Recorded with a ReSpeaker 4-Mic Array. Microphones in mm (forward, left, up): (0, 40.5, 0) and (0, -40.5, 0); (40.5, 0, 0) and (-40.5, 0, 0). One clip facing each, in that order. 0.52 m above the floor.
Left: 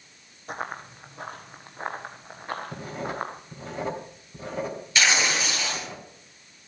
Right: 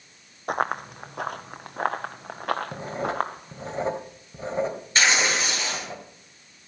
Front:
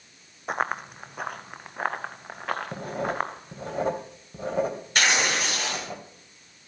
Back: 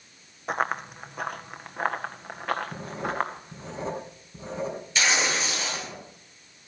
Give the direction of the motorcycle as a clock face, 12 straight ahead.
I don't hear a motorcycle.